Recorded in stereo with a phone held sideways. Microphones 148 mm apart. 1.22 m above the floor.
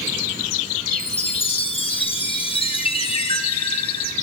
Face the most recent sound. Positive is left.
turn(degrees=40)  # may be behind; listen again after turning